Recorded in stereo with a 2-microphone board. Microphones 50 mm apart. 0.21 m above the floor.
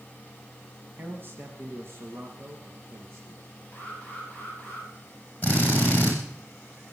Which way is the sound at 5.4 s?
30° left (ahead or behind).